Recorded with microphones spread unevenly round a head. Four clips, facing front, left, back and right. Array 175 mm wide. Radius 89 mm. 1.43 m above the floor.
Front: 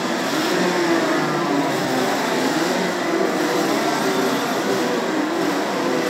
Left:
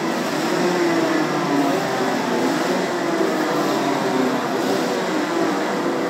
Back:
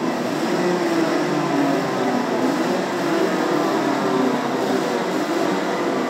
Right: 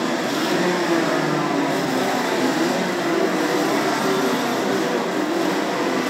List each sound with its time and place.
Only background noise.